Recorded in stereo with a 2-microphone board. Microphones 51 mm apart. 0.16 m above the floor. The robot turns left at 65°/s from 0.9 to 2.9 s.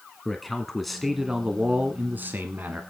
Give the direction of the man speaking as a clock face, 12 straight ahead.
12 o'clock.